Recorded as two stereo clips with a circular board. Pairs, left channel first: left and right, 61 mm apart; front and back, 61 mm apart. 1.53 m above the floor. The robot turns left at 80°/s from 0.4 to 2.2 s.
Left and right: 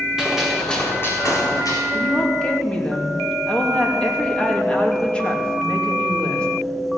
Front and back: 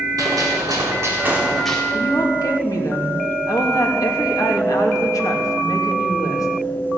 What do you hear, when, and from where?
0.2 s a gunshot: 170° right, 4 m; by 1.8 s 75° left, 4 m
1.9 s a woman speaking: 40° left, 2.5 m; by 6.5 s 15° left, 2.5 m